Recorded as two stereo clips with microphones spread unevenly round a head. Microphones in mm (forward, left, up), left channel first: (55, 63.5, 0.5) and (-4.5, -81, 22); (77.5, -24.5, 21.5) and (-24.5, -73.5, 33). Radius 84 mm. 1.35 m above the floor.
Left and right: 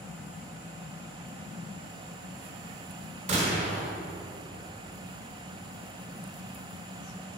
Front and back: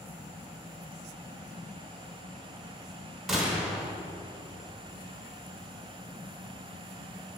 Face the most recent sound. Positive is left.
turn(degrees=-65)